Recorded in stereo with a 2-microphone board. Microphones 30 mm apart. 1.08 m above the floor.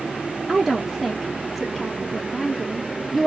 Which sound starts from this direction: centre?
A woman speaking, at 0.5 s.